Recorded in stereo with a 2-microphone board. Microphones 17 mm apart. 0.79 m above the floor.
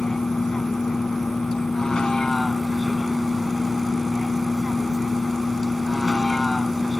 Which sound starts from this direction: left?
A vehicle, at 0.0 s.